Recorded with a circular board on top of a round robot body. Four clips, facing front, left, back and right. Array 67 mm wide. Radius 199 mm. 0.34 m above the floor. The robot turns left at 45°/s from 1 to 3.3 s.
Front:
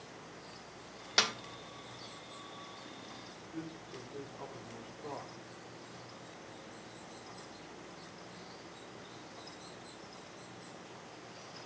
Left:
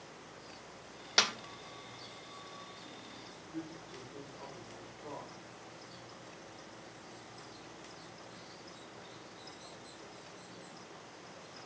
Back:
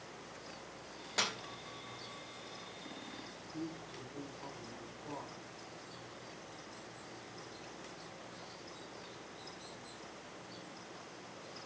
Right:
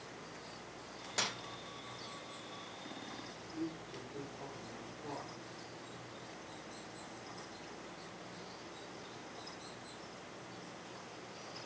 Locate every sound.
1.2 s a snare drum: 50° left, 1.5 m; by 1.3 s 45° left, 1.5 m
3.5 s a man speaking: 5° right, 5.5 m